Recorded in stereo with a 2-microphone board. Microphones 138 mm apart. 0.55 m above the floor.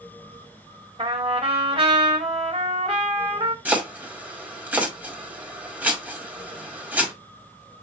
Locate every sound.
1.0 s a trumpet: 45° right (ahead or behind), 1.7 m
3.6 s chopping: 10° right (ahead or behind), 1.7 m